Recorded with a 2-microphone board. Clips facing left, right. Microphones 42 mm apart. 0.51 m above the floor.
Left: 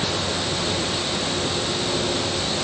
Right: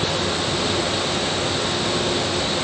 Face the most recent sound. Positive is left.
No sound to turn to.